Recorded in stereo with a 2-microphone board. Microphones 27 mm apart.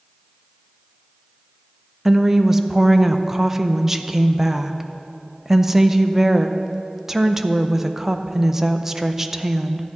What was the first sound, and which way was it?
A woman speaking, 10° right (ahead or behind).